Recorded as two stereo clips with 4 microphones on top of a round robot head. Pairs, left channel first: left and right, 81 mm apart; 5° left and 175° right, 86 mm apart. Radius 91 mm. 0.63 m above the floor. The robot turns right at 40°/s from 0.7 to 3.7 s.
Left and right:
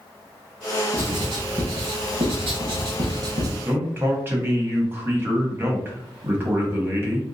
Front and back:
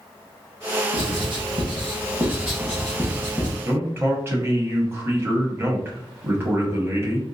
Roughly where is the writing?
Behind right.